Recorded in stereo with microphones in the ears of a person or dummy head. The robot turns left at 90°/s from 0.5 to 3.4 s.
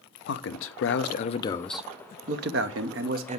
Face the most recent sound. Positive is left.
turn(degrees=-150)